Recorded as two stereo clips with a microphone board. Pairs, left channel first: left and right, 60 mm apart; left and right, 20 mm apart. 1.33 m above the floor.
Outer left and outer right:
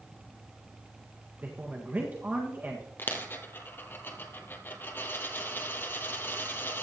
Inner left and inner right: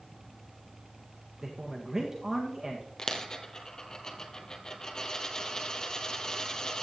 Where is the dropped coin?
40° left (ahead or behind), 1.7 m.